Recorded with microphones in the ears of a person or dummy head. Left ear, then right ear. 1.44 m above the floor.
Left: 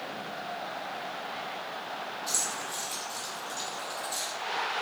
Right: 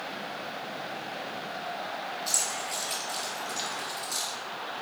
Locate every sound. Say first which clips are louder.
2.3 s keys jangling: right 2 dB; 25° right (ahead or behind), 2 m; by 4.3 s 45° right (ahead or behind), 3 m